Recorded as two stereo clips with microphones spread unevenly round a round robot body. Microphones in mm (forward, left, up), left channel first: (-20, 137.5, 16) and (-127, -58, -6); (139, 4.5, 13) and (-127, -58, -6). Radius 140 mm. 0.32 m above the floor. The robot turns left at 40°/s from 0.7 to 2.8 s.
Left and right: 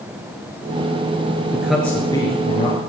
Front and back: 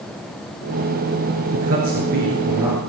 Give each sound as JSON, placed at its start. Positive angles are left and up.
{"t": 1.5, "sound": "a man speaking", "azimuth_deg": 160, "distance_m": 5.0}